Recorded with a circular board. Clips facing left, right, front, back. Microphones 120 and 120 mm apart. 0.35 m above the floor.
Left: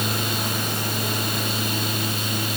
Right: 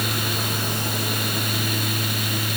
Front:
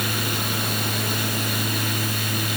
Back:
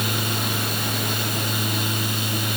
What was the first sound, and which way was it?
Only background noise.